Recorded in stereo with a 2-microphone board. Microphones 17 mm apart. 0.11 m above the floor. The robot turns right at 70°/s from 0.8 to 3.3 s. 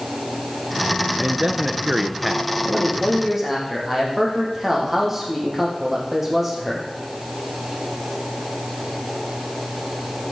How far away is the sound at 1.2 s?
About 1.3 m.